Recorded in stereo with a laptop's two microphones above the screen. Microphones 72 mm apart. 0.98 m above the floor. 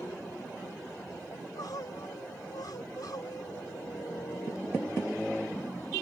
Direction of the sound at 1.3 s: 70° left (ahead or behind).